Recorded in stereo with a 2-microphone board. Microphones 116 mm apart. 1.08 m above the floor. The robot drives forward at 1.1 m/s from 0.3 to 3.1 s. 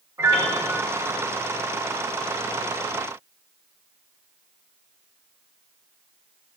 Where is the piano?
30° right (ahead or behind), 1.6 m; by 0.8 s 25° right (ahead or behind), 2 m.